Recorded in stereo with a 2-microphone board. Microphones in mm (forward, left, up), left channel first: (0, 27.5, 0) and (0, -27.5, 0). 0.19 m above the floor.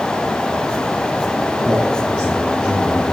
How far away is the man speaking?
About 4.5 m.